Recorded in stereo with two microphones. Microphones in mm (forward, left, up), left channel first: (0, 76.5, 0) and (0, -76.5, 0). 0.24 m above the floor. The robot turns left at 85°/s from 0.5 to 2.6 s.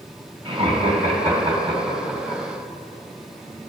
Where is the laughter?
45° right (ahead or behind), 1.9 m; by 2.4 s 40° left (ahead or behind), 1.9 m.